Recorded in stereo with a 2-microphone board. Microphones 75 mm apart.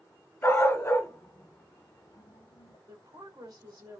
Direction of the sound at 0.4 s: 30° left (ahead or behind).